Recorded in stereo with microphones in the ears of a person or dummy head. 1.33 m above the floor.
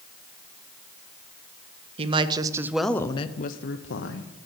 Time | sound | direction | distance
2.0 | a woman speaking | 35° right (ahead or behind) | 0.9 m